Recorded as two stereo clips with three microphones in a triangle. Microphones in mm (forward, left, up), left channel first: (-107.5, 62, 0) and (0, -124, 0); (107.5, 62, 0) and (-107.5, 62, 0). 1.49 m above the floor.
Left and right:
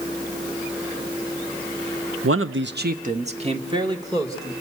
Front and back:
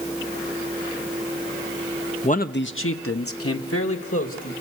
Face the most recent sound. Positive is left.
turn(degrees=15)